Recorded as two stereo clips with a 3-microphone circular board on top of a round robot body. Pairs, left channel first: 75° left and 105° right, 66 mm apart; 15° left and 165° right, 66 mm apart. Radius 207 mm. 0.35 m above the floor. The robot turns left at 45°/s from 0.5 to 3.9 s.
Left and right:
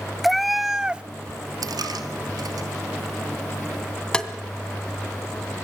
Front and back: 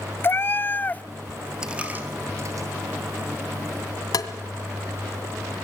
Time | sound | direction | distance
0.2 | a cat meowing | 15° right | 0.6 m
1.6 | a dropped coin | 85° right | 1.9 m
4.1 | tapping | straight ahead | 2 m